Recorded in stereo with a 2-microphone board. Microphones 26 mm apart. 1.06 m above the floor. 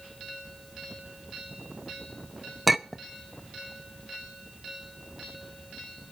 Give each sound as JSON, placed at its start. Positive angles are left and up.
{"t": 2.7, "sound": "a clink", "side_deg": 0, "distance_m": 0.5}